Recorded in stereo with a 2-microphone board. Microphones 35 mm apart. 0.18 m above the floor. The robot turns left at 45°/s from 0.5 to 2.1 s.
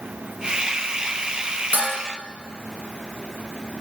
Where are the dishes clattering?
40° right (ahead or behind), 1.3 m; by 1.9 s 45° right (ahead or behind), 1.3 m.